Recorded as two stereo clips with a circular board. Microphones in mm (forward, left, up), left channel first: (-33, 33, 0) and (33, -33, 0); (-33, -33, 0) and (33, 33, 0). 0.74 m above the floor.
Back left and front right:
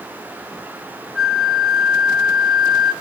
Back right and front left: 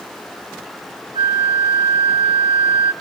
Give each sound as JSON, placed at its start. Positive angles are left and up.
{"t": 1.1, "sound": "a flute", "azimuth_deg": 45, "distance_m": 1.2}